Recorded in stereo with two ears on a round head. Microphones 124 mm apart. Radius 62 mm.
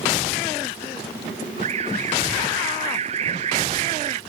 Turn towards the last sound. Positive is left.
turn(degrees=-45)  # may be behind; listen again after turning